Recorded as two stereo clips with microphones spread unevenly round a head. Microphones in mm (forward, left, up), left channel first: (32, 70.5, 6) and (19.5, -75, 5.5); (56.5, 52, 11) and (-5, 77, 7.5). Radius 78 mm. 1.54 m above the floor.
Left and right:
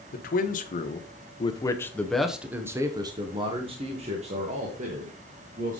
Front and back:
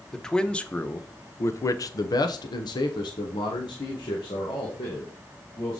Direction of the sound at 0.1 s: 60° left.